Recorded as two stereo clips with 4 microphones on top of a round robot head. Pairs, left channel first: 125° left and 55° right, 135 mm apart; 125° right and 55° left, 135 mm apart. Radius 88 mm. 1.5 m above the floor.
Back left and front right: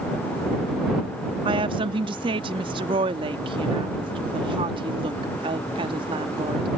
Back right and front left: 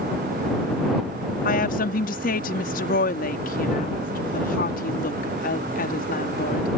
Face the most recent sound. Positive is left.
turn(degrees=-110)